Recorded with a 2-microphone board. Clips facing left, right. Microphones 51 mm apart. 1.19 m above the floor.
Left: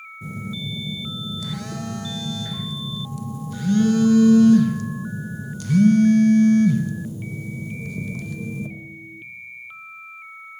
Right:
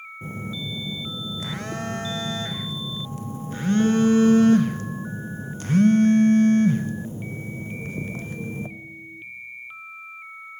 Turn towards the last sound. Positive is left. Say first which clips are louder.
# left 1 dB
turn(degrees=-35)  # may be behind; listen again after turning